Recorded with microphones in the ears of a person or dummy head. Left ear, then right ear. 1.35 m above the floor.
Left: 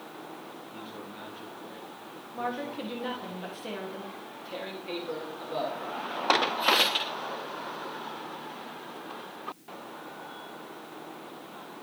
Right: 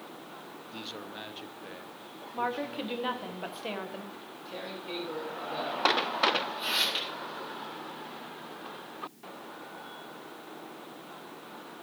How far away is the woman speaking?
About 1.2 m.